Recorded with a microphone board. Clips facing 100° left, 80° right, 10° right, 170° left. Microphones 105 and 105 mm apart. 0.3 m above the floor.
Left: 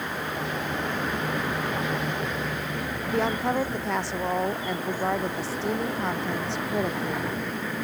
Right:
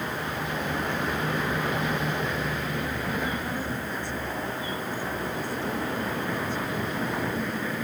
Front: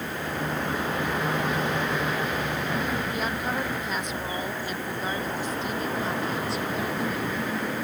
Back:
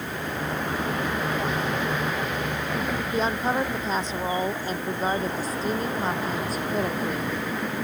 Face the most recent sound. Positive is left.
turn(degrees=120)